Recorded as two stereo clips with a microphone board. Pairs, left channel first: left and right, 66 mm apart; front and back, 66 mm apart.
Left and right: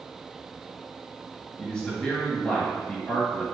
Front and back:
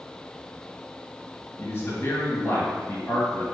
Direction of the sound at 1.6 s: 15° left.